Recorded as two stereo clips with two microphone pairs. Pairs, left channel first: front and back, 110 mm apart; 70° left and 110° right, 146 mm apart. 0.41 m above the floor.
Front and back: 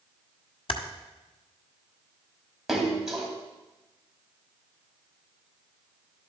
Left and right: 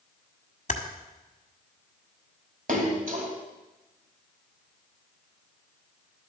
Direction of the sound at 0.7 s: 35° left.